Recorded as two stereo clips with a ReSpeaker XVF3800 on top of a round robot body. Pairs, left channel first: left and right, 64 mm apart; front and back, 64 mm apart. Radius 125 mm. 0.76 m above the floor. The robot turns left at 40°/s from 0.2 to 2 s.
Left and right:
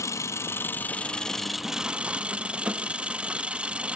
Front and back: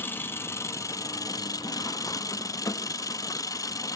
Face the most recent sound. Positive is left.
turn(degrees=-20)